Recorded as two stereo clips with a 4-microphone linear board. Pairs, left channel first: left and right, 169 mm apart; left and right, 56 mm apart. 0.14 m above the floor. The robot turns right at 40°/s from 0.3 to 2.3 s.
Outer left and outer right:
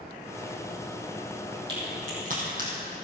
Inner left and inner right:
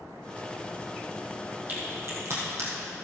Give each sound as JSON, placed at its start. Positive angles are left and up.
{"t": 1.7, "sound": "a crack", "side_deg": -30, "distance_m": 4.0}